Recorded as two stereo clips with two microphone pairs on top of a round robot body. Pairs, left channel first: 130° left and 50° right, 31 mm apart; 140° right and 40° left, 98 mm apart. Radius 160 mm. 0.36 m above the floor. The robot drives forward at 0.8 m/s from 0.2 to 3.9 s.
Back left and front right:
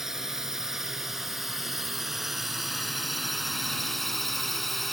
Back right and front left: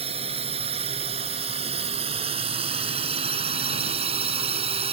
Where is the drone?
35° left; by 4.9 s 50° left.